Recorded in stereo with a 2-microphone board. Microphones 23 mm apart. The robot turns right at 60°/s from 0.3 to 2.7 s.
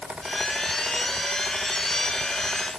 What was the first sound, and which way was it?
Only background noise.